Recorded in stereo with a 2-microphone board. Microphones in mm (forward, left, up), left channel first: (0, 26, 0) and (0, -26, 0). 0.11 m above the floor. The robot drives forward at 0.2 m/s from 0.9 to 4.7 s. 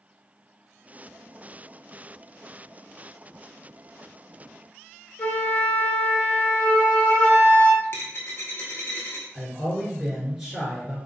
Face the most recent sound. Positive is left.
turn(degrees=-5)  # may be behind; listen again after turning